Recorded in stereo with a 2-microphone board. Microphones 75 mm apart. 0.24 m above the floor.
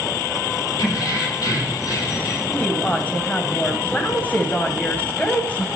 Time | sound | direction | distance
0.8 | keys jangling | 70° left (ahead or behind) | 5 m
2.5 | a woman speaking | 20° left (ahead or behind) | 1.1 m